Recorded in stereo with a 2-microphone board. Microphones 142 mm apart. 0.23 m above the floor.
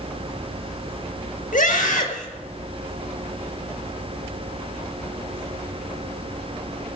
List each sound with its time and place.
1.5 s a scream: 75° left (ahead or behind), 5 m